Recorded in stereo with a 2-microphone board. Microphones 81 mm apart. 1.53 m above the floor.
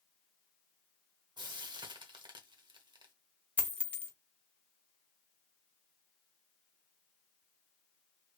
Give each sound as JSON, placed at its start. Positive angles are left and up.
{"t": 1.4, "sound": "frying", "side_deg": -70, "distance_m": 0.8}
{"t": 3.6, "sound": "a dropped coin", "side_deg": 15, "distance_m": 0.9}